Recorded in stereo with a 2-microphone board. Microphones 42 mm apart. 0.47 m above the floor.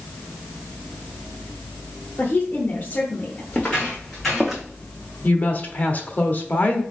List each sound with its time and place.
2.2 s a woman speaking: 45° left (ahead or behind), 1.0 m
3.5 s footsteps: 30° left (ahead or behind), 2 m; by 4.6 s 15° right (ahead or behind), 1.6 m
5.2 s a woman speaking: 40° left (ahead or behind), 1.0 m